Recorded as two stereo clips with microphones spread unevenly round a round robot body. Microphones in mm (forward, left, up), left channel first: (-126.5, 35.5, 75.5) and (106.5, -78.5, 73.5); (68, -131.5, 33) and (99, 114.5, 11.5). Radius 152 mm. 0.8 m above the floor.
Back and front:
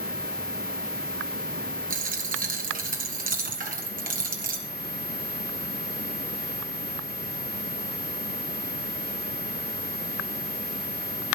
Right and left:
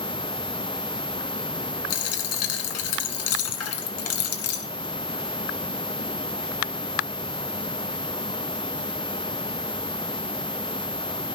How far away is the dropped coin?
About 1.6 m.